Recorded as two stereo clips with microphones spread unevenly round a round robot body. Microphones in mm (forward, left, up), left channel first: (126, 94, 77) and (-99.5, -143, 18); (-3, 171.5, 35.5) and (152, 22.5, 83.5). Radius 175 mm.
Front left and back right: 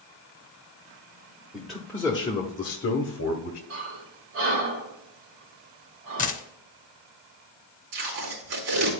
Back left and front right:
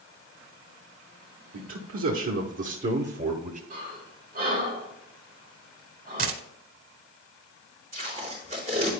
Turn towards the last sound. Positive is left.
turn(degrees=-120)